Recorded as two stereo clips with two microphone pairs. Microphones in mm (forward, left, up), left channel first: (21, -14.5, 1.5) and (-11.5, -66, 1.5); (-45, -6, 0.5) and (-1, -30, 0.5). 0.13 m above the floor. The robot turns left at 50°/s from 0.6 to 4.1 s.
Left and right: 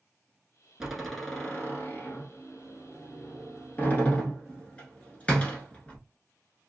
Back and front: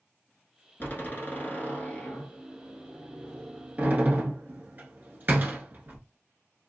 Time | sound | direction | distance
0.8 | a door slam | 160° left | 1.3 m